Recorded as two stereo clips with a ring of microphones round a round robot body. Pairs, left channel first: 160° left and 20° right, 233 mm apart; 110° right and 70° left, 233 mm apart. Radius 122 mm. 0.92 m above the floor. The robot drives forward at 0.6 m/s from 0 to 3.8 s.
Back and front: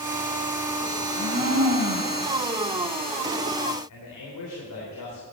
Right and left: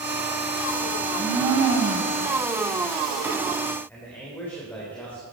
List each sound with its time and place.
1.0 s a blender: 5° right, 3.5 m
3.9 s a man speaking: 165° left, 3 m